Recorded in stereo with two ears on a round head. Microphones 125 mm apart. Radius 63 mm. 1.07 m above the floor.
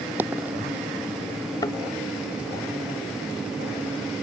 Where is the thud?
30° left (ahead or behind).